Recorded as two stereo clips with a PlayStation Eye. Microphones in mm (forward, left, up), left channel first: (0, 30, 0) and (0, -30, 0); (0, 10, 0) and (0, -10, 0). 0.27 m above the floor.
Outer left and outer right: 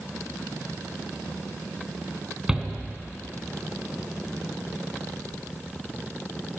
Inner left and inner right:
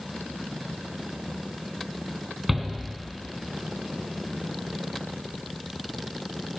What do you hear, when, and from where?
2.5 s a shout: 10° right (ahead or behind), 3 m